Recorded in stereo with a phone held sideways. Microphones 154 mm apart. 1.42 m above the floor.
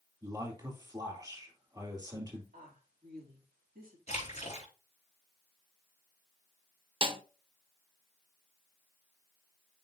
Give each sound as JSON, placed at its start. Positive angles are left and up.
{"t": 0.2, "sound": "a man speaking", "side_deg": -25, "distance_m": 2.5}
{"t": 2.5, "sound": "a woman speaking", "side_deg": -65, "distance_m": 2.5}
{"t": 4.1, "sound": "a splash", "side_deg": 45, "distance_m": 3.0}
{"t": 7.0, "sound": "a snare drum", "side_deg": -35, "distance_m": 0.7}